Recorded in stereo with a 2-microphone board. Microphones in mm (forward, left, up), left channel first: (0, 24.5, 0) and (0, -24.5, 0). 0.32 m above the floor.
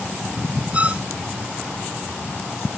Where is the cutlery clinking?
I don't hear cutlery clinking.